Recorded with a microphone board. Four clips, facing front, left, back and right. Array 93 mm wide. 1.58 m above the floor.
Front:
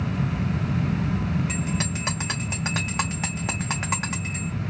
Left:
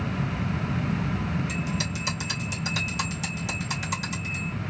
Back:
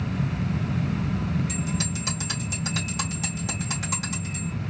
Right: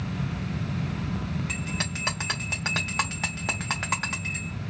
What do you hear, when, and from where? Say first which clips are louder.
1.5 s a bell: left 2 dB, front 1 dB; 45° right, 0.6 m